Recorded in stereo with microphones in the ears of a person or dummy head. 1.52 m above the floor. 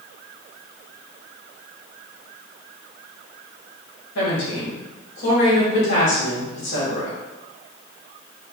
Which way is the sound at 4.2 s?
75° left (ahead or behind).